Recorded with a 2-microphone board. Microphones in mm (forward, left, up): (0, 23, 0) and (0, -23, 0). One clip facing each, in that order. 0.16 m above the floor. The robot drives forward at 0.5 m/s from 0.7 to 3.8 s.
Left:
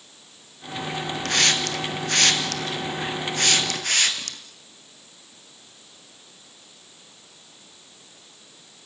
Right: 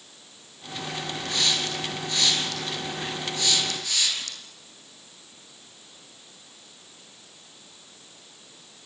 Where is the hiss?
65° left (ahead or behind), 2.5 m; by 4.4 s 55° left (ahead or behind), 2.5 m.